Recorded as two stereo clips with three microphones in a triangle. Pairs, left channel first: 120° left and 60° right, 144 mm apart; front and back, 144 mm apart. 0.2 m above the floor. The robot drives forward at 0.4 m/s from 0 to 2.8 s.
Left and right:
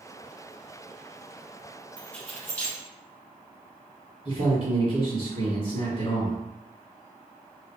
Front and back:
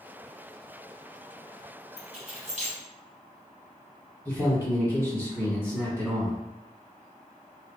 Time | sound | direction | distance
2.0 | keys jangling | 160° right | 1.1 m
4.2 | a man speaking | 115° left | 2.0 m